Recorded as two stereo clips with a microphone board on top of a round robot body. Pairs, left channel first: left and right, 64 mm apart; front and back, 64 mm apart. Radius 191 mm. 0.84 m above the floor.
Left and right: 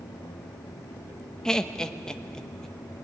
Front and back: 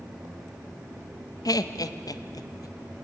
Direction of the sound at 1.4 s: 10° left.